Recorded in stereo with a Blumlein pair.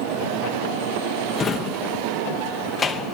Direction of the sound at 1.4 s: 20° left.